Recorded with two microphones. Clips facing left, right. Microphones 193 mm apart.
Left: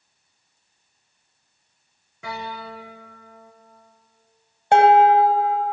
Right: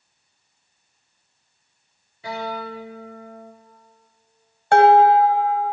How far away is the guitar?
About 4.5 m.